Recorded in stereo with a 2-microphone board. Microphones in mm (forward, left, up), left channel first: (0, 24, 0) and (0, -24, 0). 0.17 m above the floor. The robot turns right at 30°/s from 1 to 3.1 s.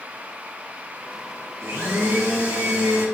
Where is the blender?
115° right, 1.6 m; by 3.0 s 70° right, 1.6 m.